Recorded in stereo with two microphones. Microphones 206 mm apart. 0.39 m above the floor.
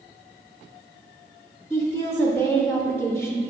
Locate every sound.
1.7 s a woman speaking: 10° left (ahead or behind), 0.8 m